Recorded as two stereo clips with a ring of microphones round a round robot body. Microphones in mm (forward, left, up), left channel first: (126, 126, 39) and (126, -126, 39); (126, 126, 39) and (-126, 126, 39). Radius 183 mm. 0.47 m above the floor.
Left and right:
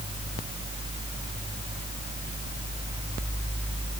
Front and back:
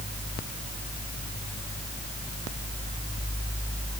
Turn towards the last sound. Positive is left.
No sound to turn to.